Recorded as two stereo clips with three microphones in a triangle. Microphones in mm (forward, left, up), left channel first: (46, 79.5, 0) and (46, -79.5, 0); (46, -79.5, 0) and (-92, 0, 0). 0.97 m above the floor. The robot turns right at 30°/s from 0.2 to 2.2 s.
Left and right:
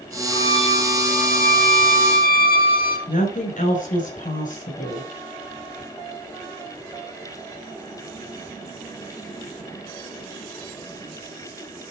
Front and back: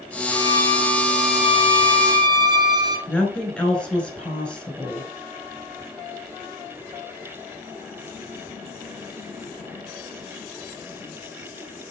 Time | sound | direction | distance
0.3 | a violin | 30° left | 1.6 m
3.1 | a woman speaking | 55° left | 5 m